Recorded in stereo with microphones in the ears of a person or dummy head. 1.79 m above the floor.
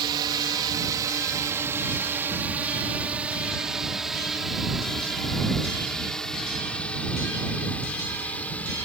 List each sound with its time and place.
0.0 s a drone: 25° right (ahead or behind); by 8.9 s 10° left (ahead or behind)